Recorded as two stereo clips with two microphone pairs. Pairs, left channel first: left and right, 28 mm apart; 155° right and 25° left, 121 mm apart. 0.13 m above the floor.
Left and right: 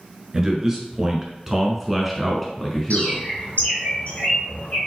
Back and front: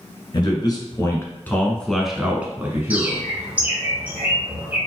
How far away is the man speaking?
About 1.4 m.